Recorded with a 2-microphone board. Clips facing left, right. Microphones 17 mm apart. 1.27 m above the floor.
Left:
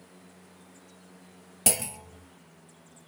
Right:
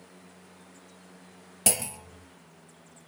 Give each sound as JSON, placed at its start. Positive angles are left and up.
{"t": 1.7, "sound": "a clunk", "side_deg": 0, "distance_m": 0.7}